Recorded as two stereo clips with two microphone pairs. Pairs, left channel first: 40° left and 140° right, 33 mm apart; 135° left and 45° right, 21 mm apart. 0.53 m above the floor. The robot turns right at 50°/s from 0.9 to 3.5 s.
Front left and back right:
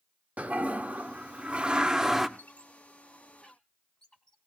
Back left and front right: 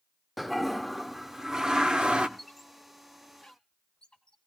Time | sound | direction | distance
0.4 | a toilet flushing | 130° right | 0.7 m
2.4 | a squeak | 40° left | 1.5 m